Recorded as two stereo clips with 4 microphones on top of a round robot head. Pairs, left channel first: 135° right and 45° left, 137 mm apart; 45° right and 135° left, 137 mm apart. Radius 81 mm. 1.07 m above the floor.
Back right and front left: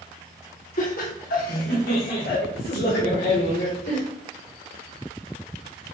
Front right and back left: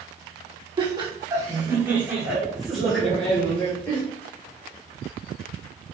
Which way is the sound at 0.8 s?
165° right.